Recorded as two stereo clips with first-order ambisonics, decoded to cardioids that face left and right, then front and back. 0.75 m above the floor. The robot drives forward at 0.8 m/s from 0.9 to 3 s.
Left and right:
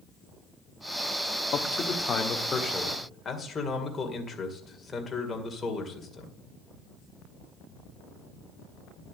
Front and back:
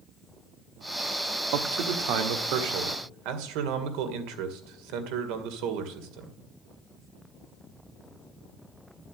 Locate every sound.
1.5 s a man speaking: 150° left, 1.1 m; by 6.3 s 165° left, 2 m